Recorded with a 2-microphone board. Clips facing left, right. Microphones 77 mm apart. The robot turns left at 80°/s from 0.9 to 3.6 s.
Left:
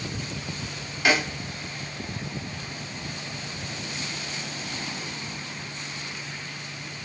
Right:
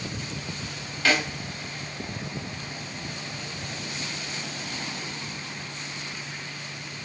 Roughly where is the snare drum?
Centre.